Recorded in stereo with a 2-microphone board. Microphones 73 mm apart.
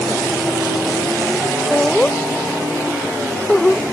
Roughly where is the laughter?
Centre.